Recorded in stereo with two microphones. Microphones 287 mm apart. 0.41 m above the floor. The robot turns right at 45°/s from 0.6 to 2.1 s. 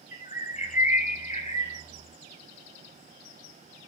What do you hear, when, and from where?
0.1 s a bird: 25° left (ahead or behind), 1.3 m; by 1.8 s 20° left (ahead or behind), 1.3 m